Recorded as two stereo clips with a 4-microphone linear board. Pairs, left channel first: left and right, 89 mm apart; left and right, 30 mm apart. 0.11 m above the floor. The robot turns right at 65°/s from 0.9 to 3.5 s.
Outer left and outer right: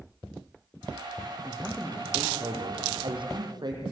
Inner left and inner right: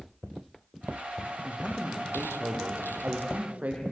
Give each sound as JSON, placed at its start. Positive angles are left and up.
{"t": 1.4, "sound": "a man speaking", "azimuth_deg": 170, "distance_m": 4.0}